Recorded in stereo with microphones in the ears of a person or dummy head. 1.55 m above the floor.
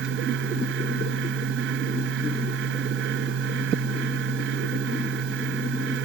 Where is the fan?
70° right (ahead or behind).